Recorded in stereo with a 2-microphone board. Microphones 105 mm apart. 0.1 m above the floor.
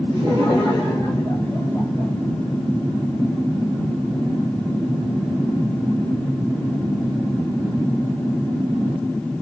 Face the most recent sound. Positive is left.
turn(degrees=20)  # may be behind; listen again after turning